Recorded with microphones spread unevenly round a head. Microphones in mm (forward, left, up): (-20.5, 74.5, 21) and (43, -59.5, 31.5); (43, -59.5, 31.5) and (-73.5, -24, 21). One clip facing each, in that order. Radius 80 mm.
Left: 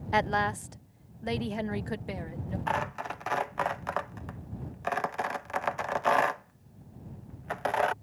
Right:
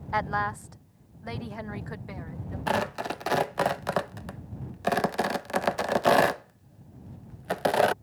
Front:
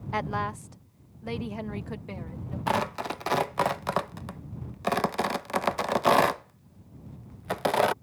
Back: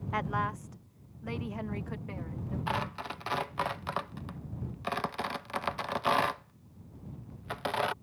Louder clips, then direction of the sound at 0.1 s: Left 2 dB, front 3 dB; 50° left.